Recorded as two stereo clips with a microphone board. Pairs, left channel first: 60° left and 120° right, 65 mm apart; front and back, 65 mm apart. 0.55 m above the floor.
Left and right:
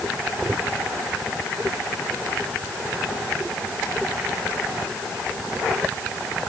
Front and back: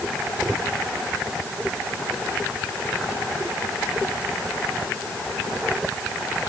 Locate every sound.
Only background noise.